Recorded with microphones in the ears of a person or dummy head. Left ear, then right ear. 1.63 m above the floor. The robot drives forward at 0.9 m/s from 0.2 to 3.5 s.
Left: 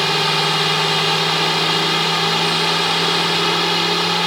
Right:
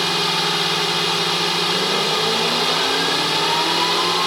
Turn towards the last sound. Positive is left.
turn(degrees=0)  # may be behind; listen again after turning